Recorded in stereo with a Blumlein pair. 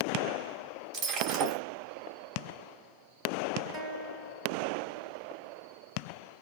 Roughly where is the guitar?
Ahead right.